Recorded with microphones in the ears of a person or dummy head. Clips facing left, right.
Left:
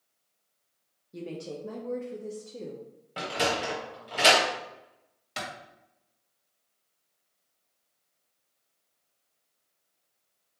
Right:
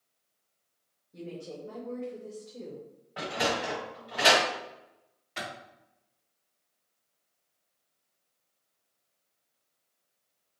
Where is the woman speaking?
60° left (ahead or behind), 0.7 m; by 2.8 s 55° left (ahead or behind), 1.4 m.